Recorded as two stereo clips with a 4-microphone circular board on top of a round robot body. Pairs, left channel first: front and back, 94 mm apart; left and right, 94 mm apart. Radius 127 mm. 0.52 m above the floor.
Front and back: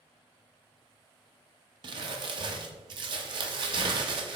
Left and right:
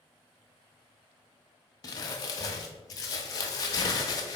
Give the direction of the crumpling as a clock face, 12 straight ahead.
7 o'clock.